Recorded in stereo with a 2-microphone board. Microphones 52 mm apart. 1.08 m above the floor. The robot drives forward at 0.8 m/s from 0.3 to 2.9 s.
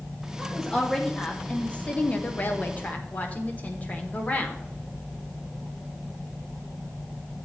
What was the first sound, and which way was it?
A woman speaking, 10° left (ahead or behind).